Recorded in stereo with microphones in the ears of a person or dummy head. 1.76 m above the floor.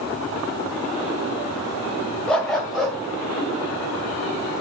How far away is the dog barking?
About 2 m.